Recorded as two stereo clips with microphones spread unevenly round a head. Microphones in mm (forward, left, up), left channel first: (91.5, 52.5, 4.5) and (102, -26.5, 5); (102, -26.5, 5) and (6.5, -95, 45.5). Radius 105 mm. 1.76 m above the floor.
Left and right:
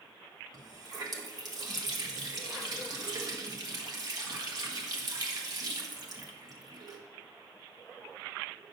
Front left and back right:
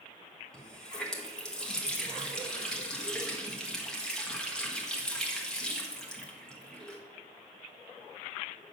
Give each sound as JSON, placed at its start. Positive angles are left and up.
{"t": 0.5, "sound": "a running tap", "azimuth_deg": -60, "distance_m": 1.7}